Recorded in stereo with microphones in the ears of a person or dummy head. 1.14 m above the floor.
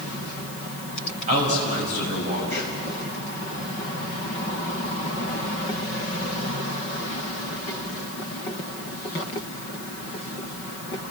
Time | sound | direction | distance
1.3 | a man speaking | 45° right (ahead or behind) | 6.5 m